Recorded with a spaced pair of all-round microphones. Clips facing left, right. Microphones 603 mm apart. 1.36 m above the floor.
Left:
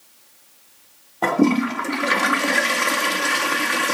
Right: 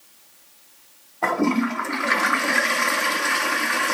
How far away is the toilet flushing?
About 0.6 m.